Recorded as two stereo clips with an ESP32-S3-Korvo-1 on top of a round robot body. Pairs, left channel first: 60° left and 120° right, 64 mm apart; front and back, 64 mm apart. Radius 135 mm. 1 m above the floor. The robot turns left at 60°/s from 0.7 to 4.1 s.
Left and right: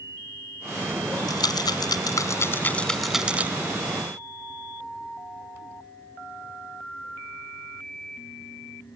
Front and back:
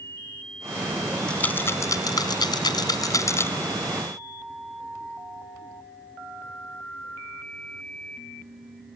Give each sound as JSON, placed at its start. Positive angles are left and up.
{"t": 1.3, "sound": "a rattle", "azimuth_deg": 80}